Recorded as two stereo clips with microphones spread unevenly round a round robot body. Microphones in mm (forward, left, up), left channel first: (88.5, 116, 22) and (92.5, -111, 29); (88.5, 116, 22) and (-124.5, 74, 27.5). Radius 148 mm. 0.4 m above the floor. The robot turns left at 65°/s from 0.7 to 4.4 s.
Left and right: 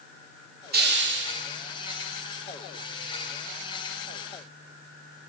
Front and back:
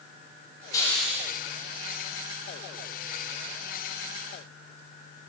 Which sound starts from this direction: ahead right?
A hiss, at 0.7 s.